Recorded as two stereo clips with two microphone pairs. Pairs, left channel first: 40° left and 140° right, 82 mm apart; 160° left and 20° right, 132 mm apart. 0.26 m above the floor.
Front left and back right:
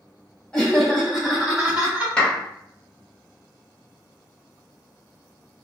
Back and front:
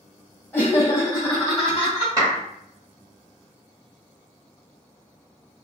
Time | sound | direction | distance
0.5 | laughter | 105° left | 1.4 m
2.2 | a clap | 15° right | 1.1 m